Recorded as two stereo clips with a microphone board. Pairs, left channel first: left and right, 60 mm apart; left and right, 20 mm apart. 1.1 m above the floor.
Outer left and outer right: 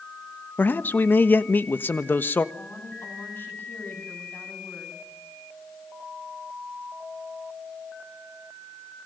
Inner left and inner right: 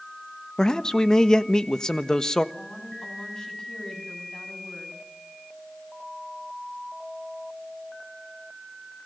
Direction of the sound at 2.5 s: 35° left (ahead or behind).